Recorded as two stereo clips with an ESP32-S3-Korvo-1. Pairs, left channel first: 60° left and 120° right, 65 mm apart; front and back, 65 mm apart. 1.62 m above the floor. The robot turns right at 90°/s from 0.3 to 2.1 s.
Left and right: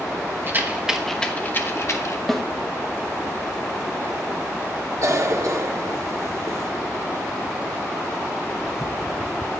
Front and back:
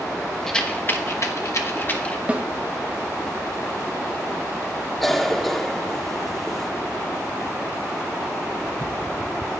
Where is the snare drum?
140° left, 1.0 m.